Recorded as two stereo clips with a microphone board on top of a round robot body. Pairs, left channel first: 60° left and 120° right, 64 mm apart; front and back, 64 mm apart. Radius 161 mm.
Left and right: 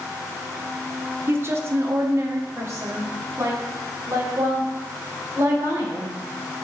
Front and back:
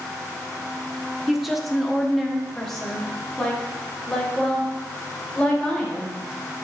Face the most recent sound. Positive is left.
turn(degrees=-80)